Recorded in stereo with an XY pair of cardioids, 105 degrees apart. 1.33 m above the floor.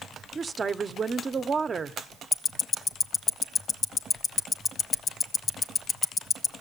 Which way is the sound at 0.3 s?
35° right.